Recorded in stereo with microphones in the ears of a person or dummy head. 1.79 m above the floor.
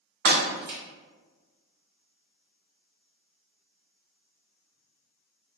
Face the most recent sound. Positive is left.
turn(degrees=-60)  # may be behind; listen again after turning